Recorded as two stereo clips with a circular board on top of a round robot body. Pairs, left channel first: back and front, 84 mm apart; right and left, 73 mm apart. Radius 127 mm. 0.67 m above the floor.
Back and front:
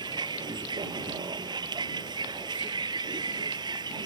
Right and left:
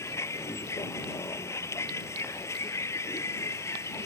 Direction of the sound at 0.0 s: 35° right.